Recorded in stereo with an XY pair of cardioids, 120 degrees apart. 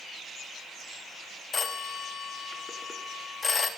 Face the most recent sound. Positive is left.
turn(degrees=25)